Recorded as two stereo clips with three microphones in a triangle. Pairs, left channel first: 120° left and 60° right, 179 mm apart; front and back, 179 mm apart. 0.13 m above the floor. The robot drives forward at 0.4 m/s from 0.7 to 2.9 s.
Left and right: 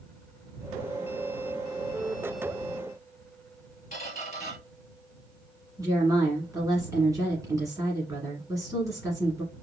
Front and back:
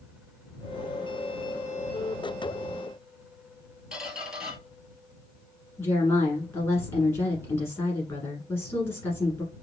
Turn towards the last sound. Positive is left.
turn(degrees=-45)